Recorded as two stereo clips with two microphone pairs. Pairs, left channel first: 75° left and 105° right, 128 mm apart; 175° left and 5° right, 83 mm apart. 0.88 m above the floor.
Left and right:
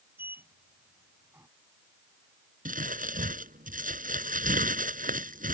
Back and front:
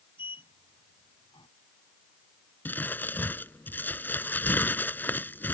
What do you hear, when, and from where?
0.2 s a sliding door: straight behind
2.6 s crumpling: 115° right